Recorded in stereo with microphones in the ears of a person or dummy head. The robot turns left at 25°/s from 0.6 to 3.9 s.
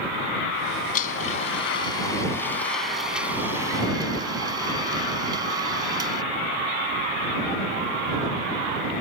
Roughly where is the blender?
Ahead left.